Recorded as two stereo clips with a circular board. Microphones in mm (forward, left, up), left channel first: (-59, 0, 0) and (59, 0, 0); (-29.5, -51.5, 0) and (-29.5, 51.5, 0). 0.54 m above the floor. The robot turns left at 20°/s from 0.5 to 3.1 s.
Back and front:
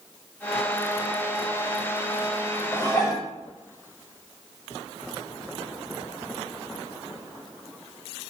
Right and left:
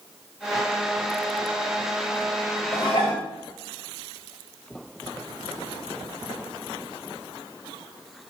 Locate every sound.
2.7 s dishes clattering: 120° right, 1.7 m; by 3.3 s 130° right, 1.7 m